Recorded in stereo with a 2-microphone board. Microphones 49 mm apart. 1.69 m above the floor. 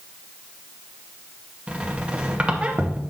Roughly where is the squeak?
Right.